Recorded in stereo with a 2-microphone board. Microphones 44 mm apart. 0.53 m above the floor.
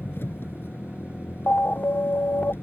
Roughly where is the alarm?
Left.